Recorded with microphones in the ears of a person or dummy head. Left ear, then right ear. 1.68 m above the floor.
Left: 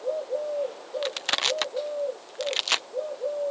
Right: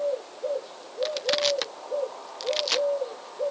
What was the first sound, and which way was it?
Crushing, 30° left (ahead or behind).